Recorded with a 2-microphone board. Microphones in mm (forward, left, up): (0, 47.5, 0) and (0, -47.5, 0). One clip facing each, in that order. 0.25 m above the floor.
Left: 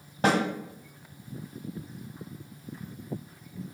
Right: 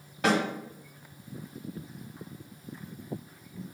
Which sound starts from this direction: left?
A snare drum, at 0.2 s.